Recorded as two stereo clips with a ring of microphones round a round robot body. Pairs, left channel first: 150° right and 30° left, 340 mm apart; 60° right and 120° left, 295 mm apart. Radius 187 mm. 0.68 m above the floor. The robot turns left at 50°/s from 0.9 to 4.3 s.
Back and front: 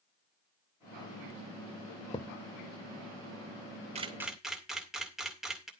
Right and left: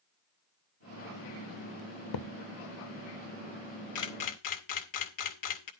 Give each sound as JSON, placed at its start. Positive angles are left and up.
{"t": 2.1, "sound": "a thud", "azimuth_deg": -75, "distance_m": 0.8}
{"t": 4.0, "sound": "a camera shutter", "azimuth_deg": -40, "distance_m": 2.0}